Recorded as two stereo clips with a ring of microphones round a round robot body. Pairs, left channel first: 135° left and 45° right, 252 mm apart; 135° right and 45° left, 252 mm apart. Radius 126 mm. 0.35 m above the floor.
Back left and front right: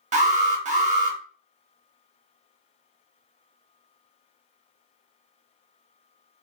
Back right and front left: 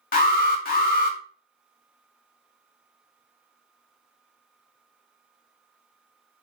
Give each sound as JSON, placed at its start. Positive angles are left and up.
{"t": 0.1, "sound": "an alarm", "azimuth_deg": -95, "distance_m": 0.8}